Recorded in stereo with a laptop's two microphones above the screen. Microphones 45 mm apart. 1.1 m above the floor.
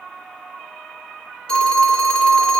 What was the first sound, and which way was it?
A phone ringing, 25° left (ahead or behind).